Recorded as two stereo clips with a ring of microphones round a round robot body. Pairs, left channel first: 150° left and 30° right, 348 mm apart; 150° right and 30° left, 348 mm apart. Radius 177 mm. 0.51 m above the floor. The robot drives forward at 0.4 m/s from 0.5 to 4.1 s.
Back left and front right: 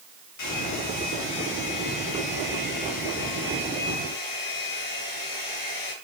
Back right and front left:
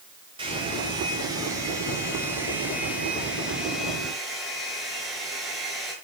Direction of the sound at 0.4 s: 105° left.